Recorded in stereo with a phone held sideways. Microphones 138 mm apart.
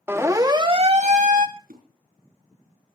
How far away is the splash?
About 6.5 m.